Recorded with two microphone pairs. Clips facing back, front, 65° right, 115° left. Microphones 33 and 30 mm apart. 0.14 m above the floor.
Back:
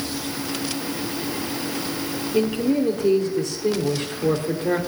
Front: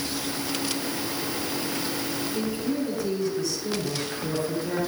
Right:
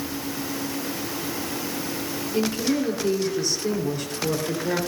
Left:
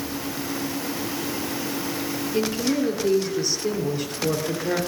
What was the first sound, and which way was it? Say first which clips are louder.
A man speaking: back 10 dB, even; 165° right.